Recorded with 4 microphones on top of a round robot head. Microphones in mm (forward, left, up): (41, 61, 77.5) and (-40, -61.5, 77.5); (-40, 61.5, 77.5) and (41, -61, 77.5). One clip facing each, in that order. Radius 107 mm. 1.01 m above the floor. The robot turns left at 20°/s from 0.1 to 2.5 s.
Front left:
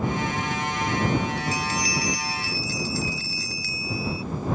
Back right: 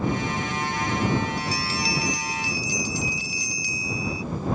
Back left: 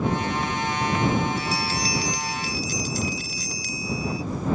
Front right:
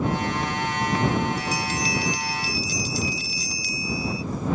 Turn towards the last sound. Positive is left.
turn(degrees=165)